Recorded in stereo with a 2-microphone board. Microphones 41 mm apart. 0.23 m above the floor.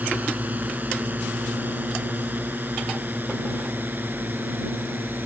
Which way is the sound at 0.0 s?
40° right (ahead or behind).